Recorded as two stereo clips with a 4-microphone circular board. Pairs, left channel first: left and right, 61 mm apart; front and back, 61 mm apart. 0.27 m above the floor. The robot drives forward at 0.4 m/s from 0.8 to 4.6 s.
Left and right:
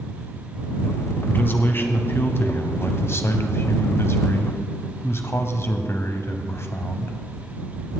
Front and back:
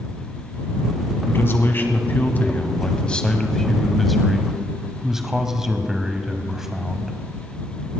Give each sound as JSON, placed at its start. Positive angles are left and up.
{"t": 1.3, "sound": "a man speaking", "azimuth_deg": 40, "distance_m": 1.8}